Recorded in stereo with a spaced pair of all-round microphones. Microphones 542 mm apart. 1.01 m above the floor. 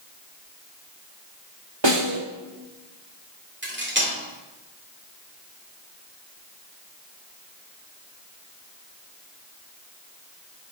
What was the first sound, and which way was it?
A snare drum, 50° right (ahead or behind).